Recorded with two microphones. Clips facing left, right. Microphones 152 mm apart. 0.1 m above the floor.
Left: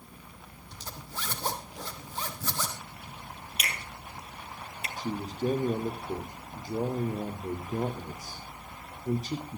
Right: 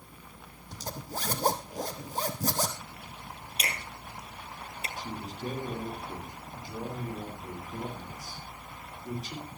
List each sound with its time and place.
0.7 s a zipper: 40° right (ahead or behind), 2.5 m
3.6 s a finger snap: 30° right (ahead or behind), 2.5 m
5.0 s a man speaking: 40° left (ahead or behind), 5 m